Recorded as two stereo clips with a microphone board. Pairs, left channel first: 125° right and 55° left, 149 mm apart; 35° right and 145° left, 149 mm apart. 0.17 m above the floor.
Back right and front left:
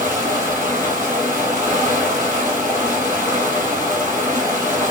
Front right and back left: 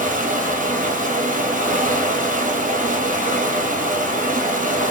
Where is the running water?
130° left, 1.1 m.